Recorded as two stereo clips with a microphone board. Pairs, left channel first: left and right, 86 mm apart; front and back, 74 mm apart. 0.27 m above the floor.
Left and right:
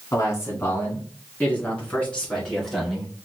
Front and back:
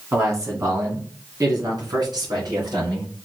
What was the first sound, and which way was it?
A man speaking, 135° left.